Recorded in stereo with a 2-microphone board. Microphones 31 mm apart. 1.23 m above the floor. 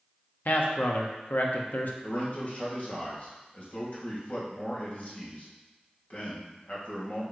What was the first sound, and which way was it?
A man speaking, 65° left (ahead or behind).